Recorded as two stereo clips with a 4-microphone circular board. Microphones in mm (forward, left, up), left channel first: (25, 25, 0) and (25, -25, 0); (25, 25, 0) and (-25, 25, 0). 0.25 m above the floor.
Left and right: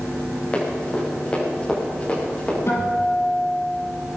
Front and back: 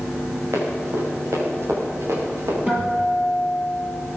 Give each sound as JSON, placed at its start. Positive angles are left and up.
{"t": 0.5, "sound": "running footsteps", "azimuth_deg": 160, "distance_m": 7.0}
{"t": 2.7, "sound": "a guitar", "azimuth_deg": 115, "distance_m": 5.5}